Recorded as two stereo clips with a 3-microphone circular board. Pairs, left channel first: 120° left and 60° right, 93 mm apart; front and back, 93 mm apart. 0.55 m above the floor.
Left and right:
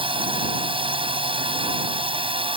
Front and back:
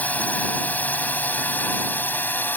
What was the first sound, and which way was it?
A drone, 70° right.